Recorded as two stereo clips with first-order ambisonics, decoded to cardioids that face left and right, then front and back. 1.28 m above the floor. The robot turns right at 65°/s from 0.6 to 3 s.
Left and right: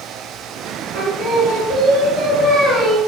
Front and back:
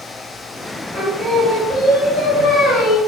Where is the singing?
115° right, 2.0 m; by 3.0 s 20° left, 2.0 m.